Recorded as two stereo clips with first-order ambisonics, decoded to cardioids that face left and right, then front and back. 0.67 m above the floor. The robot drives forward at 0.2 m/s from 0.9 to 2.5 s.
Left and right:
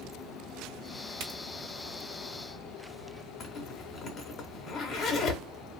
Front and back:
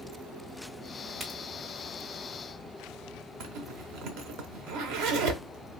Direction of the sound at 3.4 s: 155° left.